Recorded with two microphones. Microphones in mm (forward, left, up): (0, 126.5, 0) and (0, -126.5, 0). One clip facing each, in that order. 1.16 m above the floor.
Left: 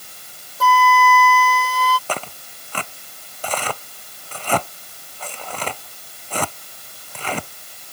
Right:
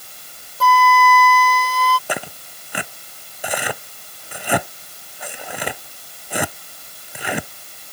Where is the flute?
Centre (ahead or behind).